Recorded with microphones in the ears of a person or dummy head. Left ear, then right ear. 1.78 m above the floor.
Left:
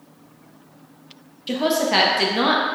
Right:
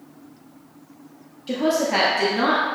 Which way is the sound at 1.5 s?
15° left (ahead or behind).